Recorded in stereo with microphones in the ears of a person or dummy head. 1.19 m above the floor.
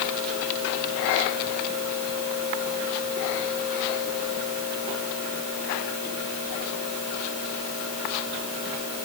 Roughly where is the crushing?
I don't hear crushing.